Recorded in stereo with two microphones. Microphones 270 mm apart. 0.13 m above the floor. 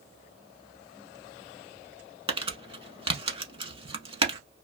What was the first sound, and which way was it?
Crumpling, 20° right (ahead or behind).